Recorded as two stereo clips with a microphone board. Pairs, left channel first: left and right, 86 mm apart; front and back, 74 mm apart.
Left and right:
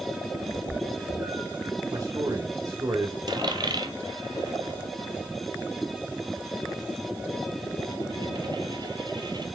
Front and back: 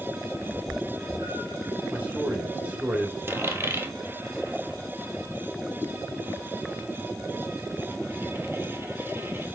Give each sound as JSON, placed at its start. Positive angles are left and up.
{"t": 0.5, "sound": "a cat meowing", "azimuth_deg": -155, "distance_m": 3.0}
{"t": 1.9, "sound": "a man speaking", "azimuth_deg": -115, "distance_m": 1.7}
{"t": 3.3, "sound": "a dropped coin", "azimuth_deg": -120, "distance_m": 1.5}